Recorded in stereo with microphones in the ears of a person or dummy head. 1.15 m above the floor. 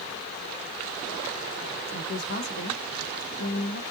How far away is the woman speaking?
About 1.8 m.